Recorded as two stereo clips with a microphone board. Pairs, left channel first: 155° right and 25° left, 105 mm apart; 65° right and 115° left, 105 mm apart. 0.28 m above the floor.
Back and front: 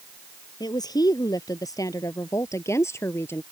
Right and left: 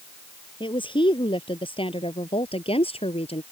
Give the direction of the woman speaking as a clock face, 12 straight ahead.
4 o'clock.